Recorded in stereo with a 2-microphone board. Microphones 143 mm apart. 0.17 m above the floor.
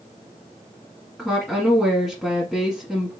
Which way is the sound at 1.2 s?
Centre (ahead or behind).